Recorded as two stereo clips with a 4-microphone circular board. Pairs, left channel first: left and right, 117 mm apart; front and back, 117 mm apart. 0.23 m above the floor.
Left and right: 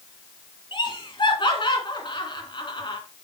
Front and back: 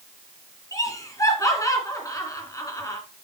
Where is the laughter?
55° left, 2.5 m.